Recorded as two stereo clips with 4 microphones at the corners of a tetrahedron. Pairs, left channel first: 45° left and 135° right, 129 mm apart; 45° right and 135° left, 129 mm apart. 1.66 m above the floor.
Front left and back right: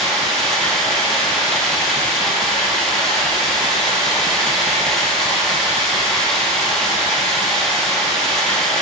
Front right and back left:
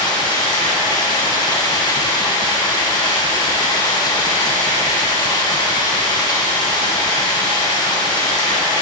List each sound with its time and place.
0.0 s running water: 40° right, 1.2 m